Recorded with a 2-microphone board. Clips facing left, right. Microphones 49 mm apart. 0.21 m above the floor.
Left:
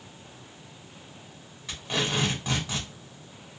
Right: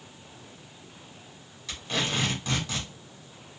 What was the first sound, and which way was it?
Tape being pulled, 15° left (ahead or behind).